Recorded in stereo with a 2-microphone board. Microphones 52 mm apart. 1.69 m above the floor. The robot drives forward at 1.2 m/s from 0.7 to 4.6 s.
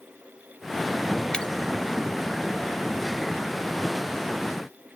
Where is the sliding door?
No sliding door in this recording.